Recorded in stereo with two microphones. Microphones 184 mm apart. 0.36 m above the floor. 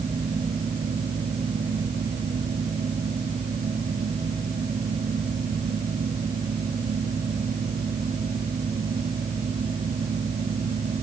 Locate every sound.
Only background noise.